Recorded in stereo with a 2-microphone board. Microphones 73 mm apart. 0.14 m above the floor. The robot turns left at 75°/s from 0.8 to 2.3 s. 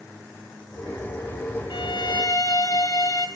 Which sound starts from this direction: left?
A violin, at 1.7 s.